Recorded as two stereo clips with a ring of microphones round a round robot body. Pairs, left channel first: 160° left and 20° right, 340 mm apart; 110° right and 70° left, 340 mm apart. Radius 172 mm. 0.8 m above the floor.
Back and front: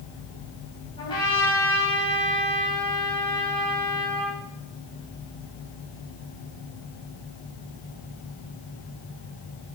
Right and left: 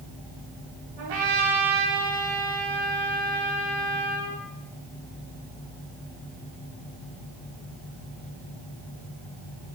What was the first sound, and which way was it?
A trumpet, 80° left.